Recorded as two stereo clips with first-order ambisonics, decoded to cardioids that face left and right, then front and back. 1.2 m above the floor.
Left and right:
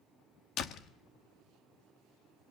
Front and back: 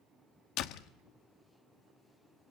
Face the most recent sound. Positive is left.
turn(degrees=40)